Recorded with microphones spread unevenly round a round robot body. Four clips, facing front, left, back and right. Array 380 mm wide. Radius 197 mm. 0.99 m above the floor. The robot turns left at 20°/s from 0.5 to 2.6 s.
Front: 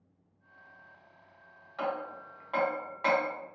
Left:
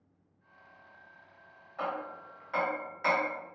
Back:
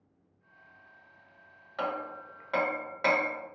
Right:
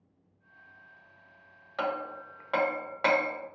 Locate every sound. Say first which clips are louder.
1.8 s hammering: right 3 dB, even; 110° right, 0.9 m; by 3.3 s 125° right, 0.9 m